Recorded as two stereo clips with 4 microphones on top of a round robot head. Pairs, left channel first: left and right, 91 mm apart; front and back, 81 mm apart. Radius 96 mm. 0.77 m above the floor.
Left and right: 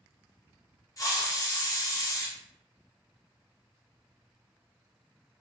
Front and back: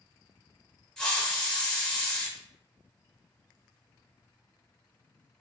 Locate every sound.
1.0 s a hiss: 80° left, 1.0 m